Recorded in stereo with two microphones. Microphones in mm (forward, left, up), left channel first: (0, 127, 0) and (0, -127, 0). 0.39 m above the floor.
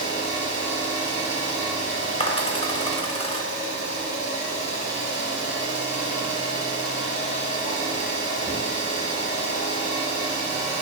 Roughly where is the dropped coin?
Left.